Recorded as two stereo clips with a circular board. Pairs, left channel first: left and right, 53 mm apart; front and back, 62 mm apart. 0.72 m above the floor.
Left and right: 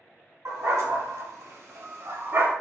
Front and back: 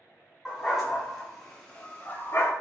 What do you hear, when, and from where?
0.5 s a dog barking: 95° right, 1.6 m; by 2.5 s 50° right, 0.9 m